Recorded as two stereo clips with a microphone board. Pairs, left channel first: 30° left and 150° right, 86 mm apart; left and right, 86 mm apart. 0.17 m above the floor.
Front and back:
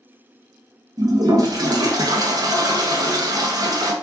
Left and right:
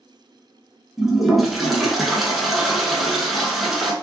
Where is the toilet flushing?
Straight behind, 0.6 m.